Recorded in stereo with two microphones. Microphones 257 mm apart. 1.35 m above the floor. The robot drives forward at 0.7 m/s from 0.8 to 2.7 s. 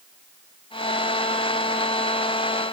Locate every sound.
Only background noise.